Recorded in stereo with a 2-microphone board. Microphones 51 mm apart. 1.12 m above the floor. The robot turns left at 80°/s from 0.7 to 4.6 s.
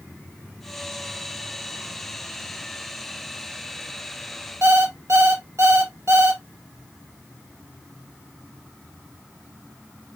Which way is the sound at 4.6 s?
60° right (ahead or behind).